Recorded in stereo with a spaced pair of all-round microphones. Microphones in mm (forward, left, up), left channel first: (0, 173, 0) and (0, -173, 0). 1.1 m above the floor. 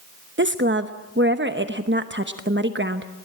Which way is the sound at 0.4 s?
35° right (ahead or behind).